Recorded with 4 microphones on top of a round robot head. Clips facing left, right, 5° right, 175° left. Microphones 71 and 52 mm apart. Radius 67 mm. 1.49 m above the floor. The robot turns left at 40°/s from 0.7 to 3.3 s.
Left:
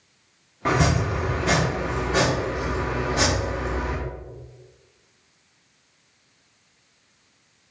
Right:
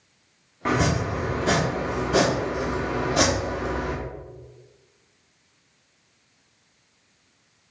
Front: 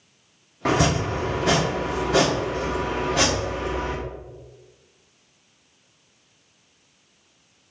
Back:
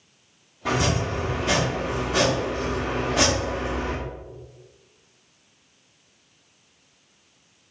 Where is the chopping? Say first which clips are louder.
Left 1 dB, front 3 dB; straight ahead, 1.3 m; by 4.0 s 105° right, 1.3 m.